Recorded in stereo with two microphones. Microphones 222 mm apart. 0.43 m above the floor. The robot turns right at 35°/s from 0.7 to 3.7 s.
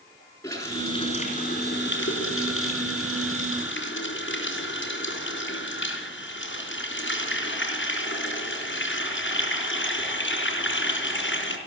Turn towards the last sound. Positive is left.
turn(degrees=120)